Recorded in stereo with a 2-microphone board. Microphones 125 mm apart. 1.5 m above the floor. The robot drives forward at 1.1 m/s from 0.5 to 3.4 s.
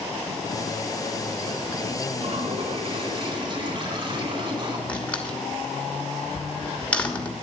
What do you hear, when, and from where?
2.1 s a toilet flushing: 55° right (ahead or behind), 3 m; by 4.8 s 40° right (ahead or behind), 3.5 m
4.9 s a door slam: 10° left (ahead or behind), 2.5 m